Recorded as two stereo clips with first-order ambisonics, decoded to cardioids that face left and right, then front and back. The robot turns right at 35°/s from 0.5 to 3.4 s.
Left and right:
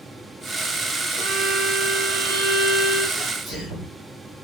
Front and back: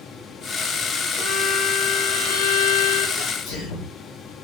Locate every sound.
1.2 s a violin: 90° right, 2 m; by 3.1 s 25° right, 2 m
3.2 s a sneeze: 25° right, 2.0 m; by 4.0 s 20° right, 2.0 m